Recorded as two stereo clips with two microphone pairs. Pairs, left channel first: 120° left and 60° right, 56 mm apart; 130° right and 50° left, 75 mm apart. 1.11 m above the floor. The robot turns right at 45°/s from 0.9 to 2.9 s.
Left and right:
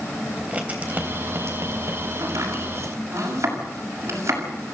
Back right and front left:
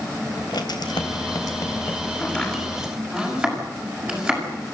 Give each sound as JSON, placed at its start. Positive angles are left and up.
{"t": 0.4, "sound": "writing", "azimuth_deg": -120, "distance_m": 3.0}
{"t": 2.2, "sound": "chopping", "azimuth_deg": -60, "distance_m": 6.5}